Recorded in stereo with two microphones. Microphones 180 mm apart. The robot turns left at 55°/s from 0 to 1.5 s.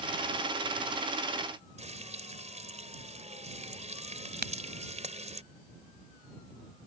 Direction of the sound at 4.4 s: 65° right (ahead or behind).